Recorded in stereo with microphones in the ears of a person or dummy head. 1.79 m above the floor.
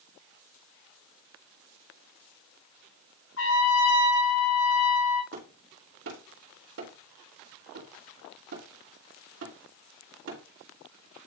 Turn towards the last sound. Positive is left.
turn(degrees=-75)  # may be behind; listen again after turning